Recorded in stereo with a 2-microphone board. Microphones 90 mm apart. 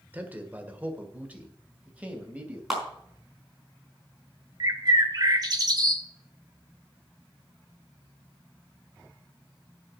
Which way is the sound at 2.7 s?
5° right (ahead or behind).